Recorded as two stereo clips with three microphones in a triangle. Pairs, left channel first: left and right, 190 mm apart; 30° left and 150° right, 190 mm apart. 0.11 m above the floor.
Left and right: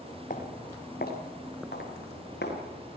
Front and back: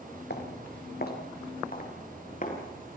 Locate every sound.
0.3 s footsteps: 50° left, 4 m; by 2.6 s 70° left, 6.5 m